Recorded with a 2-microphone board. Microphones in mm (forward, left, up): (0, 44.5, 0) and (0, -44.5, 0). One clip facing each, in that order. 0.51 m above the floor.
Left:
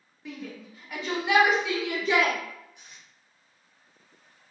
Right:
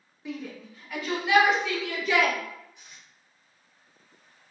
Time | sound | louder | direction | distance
0.2 | a shout | right 2 dB | centre (ahead or behind) | 1.4 m
2.8 | tape being pulled | even | 55° left (ahead or behind) | 1.9 m